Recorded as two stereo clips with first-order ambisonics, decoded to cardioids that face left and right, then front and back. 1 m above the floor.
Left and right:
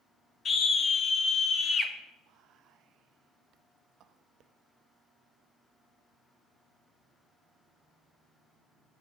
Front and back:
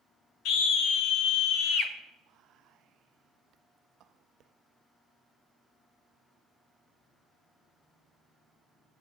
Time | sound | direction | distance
0.5 | a scream | 25° left | 1.2 m
2.2 | whispering | 135° right | 0.7 m